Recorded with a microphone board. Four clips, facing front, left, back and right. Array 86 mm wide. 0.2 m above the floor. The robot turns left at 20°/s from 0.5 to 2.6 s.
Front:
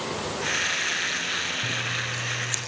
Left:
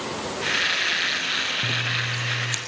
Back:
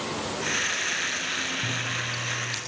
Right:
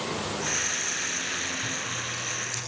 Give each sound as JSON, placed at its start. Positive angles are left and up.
{"t": 1.6, "sound": "scissors", "azimuth_deg": 95, "distance_m": 3.5}